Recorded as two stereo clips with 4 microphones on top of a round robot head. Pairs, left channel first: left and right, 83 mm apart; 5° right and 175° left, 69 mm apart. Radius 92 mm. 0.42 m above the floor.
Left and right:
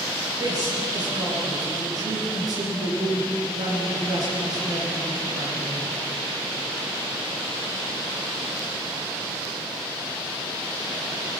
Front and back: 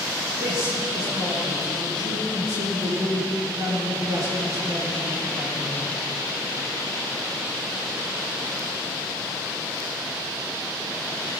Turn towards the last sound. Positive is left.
turn(degrees=-130)